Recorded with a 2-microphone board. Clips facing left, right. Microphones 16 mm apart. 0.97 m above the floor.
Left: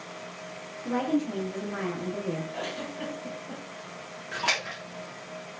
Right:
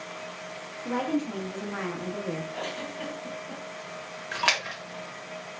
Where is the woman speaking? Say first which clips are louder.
Left 1 dB; 20° right (ahead or behind), 0.8 m.